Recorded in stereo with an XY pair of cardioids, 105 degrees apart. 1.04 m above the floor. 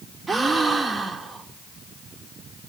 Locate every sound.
0.3 s a gasp: 30° right, 1.6 m